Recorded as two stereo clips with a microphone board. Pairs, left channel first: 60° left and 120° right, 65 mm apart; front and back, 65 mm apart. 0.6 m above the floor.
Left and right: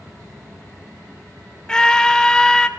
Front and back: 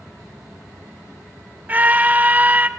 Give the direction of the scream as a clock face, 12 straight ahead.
8 o'clock.